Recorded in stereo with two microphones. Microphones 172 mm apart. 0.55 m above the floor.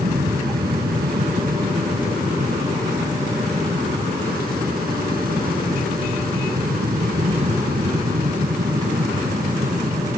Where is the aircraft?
65° right (ahead or behind); by 10.2 s 55° right (ahead or behind).